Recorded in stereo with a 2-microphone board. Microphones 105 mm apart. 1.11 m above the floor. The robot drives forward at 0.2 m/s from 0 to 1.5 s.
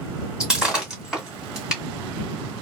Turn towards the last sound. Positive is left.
turn(degrees=-5)  # may be behind; listen again after turning